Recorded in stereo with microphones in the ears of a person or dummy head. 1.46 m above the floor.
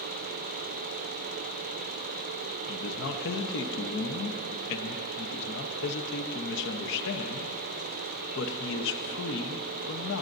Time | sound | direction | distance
2.7 | a man speaking | 65° left (ahead or behind) | 0.9 m